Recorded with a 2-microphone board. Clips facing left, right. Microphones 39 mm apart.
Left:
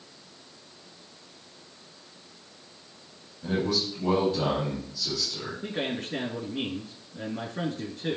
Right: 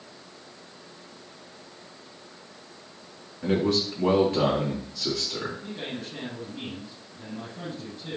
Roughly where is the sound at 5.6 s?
Left.